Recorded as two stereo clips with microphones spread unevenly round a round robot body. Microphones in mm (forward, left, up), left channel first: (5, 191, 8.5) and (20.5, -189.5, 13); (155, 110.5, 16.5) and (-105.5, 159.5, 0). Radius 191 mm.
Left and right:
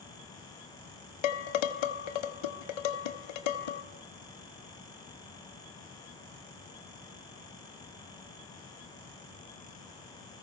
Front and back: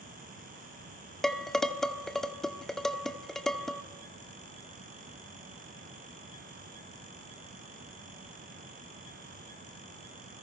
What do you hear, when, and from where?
1.2 s dishes clattering: 80° left, 1.4 m